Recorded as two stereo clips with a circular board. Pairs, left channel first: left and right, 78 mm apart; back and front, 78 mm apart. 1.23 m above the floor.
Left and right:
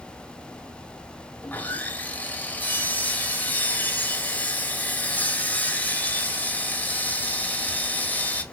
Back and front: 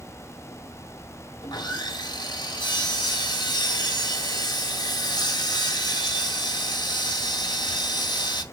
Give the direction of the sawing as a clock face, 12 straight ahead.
7 o'clock.